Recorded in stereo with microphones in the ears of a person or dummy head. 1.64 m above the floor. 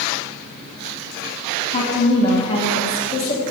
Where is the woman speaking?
35° left (ahead or behind), 2 m.